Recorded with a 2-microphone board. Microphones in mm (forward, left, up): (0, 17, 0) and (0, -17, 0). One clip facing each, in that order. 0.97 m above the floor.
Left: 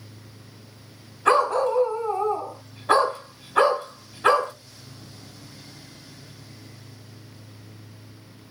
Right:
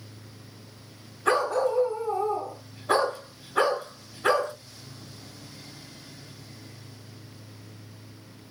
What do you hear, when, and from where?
1.2 s a dog barking: 50° left (ahead or behind), 1.9 m